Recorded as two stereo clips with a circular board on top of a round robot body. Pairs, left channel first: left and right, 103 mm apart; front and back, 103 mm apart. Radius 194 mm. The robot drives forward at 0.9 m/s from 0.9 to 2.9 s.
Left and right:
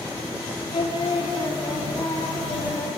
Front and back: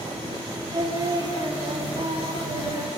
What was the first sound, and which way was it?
Singing, 130° left.